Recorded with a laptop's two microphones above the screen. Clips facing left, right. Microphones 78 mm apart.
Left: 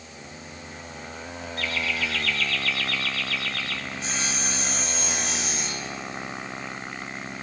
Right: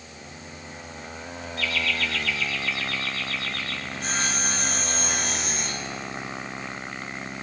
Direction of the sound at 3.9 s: 50° right (ahead or behind).